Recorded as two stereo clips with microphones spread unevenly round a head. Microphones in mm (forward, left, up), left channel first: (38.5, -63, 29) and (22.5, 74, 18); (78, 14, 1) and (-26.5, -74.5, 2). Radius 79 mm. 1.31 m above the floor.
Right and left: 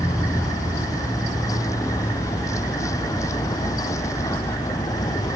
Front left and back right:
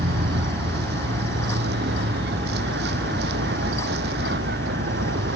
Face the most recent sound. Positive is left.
turn(degrees=-155)